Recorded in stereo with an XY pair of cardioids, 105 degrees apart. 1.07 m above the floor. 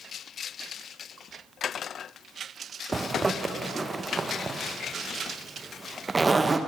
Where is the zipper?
25° right, 0.6 m.